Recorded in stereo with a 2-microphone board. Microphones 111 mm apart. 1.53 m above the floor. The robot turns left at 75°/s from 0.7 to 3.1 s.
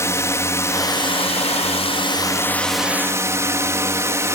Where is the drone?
155° left; by 4.3 s 25° right.